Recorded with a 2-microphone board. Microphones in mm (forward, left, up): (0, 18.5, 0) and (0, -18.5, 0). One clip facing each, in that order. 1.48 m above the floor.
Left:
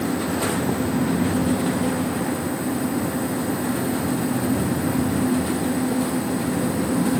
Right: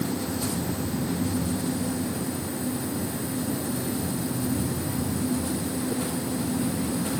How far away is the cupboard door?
No cupboard door in this recording.